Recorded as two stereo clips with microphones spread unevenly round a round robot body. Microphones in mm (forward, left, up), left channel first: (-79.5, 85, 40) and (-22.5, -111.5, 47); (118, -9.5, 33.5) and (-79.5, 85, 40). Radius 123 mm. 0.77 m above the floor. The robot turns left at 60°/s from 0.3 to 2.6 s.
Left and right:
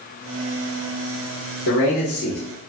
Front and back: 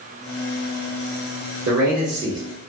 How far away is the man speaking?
About 1.5 m.